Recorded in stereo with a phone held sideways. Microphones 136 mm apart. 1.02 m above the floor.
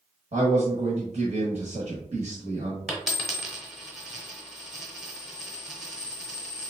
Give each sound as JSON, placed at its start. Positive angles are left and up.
{"t": 0.3, "sound": "a man speaking", "side_deg": -65, "distance_m": 1.1}
{"t": 2.9, "sound": "a dropped coin", "side_deg": 0, "distance_m": 1.2}